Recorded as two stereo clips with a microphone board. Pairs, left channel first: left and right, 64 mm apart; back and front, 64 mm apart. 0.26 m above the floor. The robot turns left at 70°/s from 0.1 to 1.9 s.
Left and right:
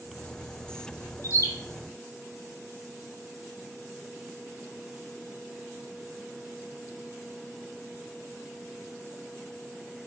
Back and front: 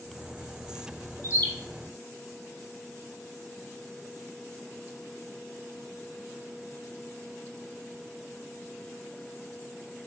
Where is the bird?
135° left, 0.6 m; by 1.5 s 120° left, 0.6 m.